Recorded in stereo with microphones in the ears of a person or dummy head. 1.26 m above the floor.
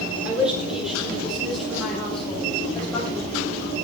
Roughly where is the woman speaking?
Centre.